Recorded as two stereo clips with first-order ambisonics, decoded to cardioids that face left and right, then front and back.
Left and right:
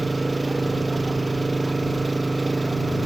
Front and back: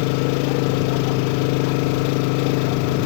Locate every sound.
0.0 s an engine running: 5° right